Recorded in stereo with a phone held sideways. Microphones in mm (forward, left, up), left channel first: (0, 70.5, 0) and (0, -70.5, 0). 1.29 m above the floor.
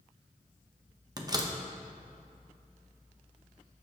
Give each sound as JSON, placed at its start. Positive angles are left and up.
{"t": 1.2, "sound": "a door slam", "side_deg": -30, "distance_m": 1.0}